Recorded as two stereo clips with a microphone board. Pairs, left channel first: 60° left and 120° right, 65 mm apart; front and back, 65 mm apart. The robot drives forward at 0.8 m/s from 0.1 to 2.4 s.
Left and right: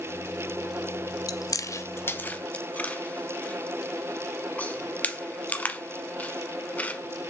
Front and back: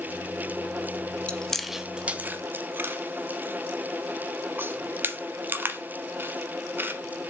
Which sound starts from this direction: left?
Chewing, at 1.3 s.